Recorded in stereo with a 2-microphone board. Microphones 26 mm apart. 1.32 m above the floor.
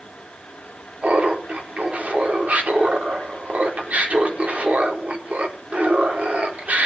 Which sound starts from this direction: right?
Laughter, at 1.0 s.